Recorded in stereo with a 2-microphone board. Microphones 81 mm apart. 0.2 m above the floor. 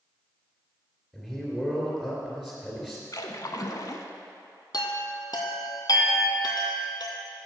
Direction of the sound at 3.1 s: 55° left (ahead or behind).